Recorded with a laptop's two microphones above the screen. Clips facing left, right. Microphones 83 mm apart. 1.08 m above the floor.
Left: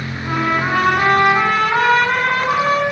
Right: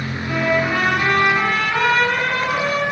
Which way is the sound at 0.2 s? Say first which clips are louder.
Left 1 dB; 40° left (ahead or behind).